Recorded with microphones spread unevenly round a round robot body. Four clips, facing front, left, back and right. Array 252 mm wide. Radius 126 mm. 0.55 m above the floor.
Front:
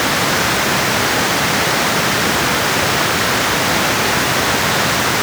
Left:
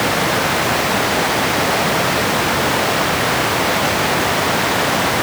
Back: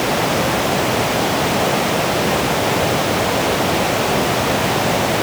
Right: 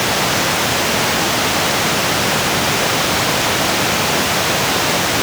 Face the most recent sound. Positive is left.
No sound to turn to.